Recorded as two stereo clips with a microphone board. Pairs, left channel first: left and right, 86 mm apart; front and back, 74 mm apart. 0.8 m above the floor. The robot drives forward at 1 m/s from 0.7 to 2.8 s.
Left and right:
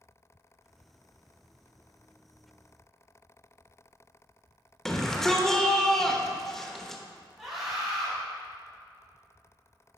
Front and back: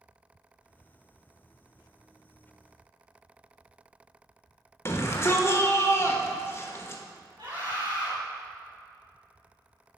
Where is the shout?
10° left, 1.0 m.